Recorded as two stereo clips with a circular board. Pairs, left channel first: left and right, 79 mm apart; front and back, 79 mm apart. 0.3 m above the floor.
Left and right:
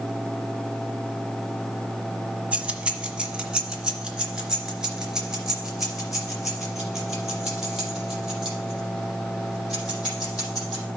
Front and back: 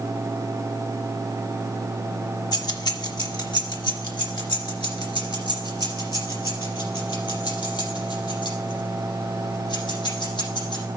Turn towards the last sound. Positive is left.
turn(degrees=-5)